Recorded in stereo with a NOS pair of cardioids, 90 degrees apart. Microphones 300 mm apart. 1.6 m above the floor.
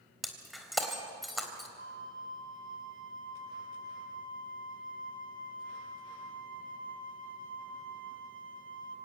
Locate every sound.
0.2 s breaking glass: straight ahead, 3.5 m
1.8 s a flute: 45° right, 2.5 m